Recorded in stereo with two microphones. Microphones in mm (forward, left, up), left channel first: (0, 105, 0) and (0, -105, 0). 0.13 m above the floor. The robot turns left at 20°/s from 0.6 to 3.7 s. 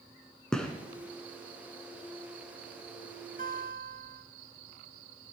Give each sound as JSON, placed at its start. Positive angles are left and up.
{"t": 0.5, "sound": "a gunshot", "side_deg": 5, "distance_m": 1.4}
{"t": 3.4, "sound": "a guitar", "side_deg": -40, "distance_m": 1.3}